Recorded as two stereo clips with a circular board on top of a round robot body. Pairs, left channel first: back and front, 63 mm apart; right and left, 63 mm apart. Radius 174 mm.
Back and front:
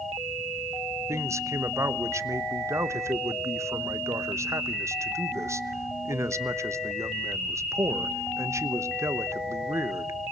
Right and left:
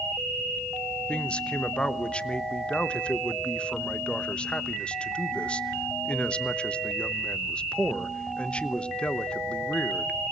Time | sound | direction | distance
1.1 | a man speaking | 20° right | 1.4 m